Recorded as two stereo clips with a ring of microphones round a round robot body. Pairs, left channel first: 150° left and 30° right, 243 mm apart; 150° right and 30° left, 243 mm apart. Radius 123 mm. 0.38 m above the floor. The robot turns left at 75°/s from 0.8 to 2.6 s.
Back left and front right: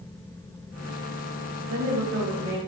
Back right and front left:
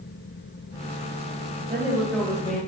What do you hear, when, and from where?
1.7 s a woman speaking: 30° right, 2 m; by 2.6 s 100° right, 2 m